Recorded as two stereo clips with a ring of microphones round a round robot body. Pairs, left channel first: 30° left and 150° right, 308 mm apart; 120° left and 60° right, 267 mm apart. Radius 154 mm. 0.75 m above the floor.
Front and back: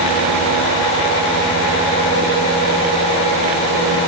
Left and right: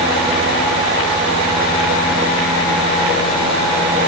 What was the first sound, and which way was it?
Only background noise.